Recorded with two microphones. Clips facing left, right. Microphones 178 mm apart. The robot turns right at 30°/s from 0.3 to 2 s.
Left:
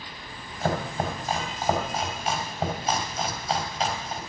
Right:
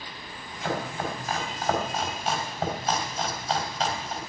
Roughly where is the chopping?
Left.